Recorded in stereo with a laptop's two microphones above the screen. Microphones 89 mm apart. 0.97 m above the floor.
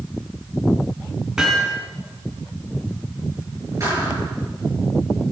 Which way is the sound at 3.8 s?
35° right (ahead or behind).